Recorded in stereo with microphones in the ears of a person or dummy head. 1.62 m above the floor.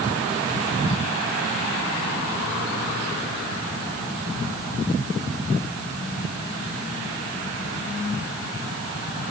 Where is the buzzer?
I don't hear a buzzer.